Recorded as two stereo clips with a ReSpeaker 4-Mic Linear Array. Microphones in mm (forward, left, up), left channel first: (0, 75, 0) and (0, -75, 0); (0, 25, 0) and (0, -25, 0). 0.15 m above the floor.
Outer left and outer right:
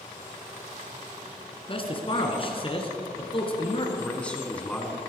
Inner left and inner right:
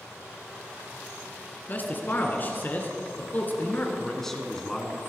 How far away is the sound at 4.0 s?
About 1.9 m.